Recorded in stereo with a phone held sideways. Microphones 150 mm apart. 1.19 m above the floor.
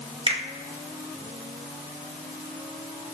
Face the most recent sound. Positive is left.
turn(degrees=-40)  # may be behind; listen again after turning